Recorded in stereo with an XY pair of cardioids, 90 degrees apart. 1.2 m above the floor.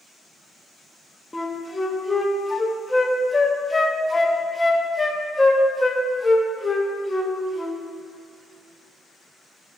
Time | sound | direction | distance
1.3 | a flute | 20° left | 1.1 m